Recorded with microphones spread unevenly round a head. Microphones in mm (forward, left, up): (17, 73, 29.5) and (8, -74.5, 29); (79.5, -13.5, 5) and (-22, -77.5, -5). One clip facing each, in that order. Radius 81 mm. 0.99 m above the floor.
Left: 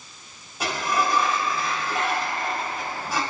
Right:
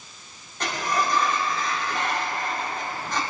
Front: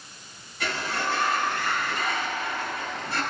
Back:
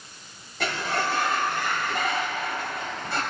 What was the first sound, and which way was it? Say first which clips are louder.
A sliding door: left 1 dB, back 2 dB; 170° left.